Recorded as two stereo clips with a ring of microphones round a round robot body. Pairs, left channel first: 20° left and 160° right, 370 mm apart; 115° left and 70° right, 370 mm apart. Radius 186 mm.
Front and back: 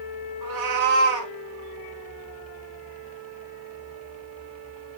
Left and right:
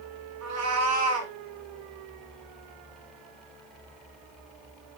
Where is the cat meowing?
120° right, 0.9 m.